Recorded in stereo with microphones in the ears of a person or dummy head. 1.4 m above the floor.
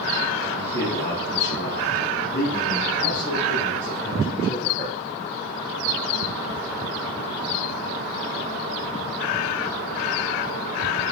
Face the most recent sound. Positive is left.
turn(degrees=60)  # may be behind; listen again after turning